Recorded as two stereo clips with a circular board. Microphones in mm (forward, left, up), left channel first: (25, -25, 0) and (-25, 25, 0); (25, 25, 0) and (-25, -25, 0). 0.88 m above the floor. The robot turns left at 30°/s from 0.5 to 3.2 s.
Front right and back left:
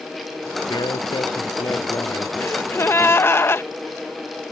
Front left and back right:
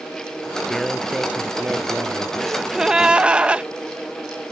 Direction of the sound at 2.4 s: 45° right.